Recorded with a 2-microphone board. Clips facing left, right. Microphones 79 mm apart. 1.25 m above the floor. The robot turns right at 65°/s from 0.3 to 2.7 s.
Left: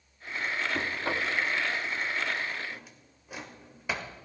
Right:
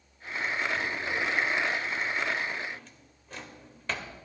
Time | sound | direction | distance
0.7 | knocking | 95° left | 2 m
2.7 | a drawer | 10° left (ahead or behind) | 1.4 m